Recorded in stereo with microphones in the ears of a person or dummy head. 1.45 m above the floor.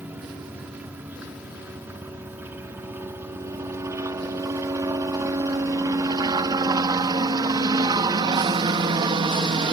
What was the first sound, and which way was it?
A helicopter, 5° right (ahead or behind).